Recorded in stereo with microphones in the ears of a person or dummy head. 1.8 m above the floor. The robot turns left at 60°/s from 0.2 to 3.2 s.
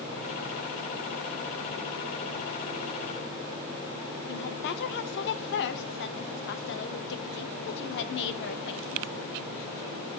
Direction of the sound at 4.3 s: 65° left (ahead or behind).